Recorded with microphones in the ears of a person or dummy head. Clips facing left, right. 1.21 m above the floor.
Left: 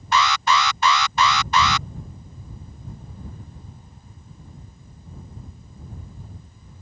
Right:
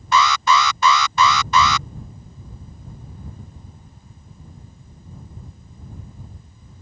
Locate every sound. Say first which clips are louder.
0.1 s an alarm: right 3 dB; 65° right (ahead or behind)